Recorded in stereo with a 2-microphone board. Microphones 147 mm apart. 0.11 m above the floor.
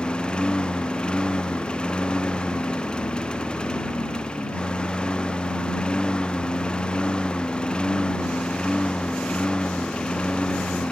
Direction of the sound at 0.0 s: 5° left (ahead or behind).